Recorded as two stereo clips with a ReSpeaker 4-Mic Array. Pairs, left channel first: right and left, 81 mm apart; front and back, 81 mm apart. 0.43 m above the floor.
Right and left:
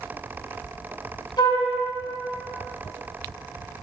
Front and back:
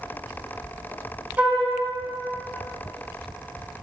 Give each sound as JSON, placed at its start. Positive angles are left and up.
{"t": 1.4, "sound": "a flute", "azimuth_deg": -115, "distance_m": 1.2}